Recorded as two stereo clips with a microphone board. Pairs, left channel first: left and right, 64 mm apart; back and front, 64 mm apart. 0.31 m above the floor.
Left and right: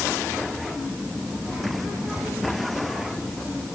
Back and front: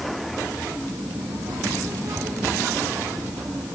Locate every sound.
0.8 s a child speaking: 10° right, 8.5 m